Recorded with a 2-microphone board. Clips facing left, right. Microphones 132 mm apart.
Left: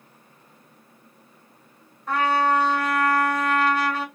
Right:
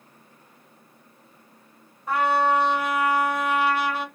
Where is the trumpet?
10° right (ahead or behind), 1.8 m.